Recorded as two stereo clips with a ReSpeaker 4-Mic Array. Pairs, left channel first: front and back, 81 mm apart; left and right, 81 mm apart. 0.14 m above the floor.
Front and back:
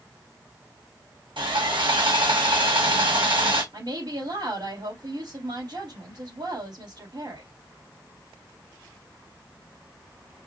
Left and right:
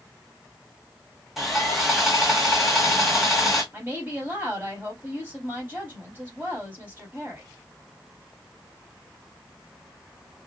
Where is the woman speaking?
155° right, 4 m.